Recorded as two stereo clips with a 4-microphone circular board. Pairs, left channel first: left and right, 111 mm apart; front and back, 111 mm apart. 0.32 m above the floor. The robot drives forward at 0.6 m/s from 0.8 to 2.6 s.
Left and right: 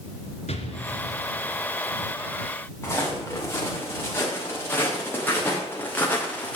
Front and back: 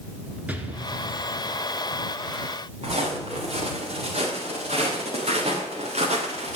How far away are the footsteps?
About 6.5 m.